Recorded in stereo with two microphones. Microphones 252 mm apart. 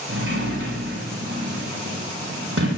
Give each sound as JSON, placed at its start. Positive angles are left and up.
{"t": 0.1, "sound": "a sliding door", "side_deg": -65, "distance_m": 5.5}